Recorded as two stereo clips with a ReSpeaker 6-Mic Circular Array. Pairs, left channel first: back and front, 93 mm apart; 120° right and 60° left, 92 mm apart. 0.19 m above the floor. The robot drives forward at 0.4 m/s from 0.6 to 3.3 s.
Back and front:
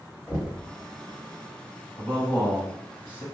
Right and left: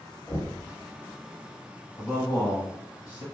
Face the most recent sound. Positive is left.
turn(degrees=-135)